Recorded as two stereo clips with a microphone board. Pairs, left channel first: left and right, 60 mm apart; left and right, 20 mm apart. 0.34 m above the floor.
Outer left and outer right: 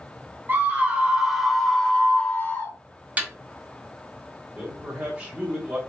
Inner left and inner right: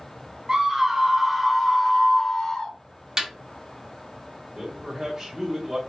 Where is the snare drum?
25° right (ahead or behind), 1.4 m.